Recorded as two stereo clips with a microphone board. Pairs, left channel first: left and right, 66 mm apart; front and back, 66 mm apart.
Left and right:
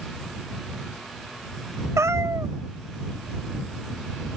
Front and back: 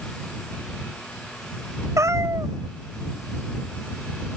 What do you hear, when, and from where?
2.0 s a cat meowing: 135° right